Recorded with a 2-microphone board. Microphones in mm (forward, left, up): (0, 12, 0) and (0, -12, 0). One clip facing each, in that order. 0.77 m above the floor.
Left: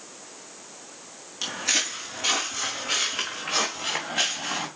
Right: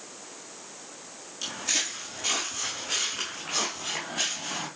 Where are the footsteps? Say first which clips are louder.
Left 4 dB; 35° left (ahead or behind), 3 m.